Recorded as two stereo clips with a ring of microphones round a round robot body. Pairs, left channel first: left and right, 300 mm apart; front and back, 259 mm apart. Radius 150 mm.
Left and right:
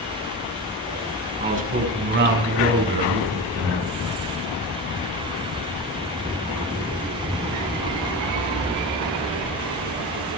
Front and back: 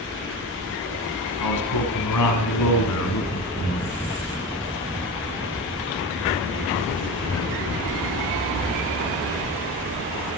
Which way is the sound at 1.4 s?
25° right.